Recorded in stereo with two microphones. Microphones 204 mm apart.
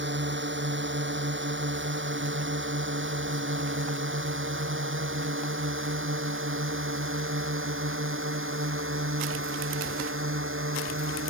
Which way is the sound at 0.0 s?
65° right (ahead or behind).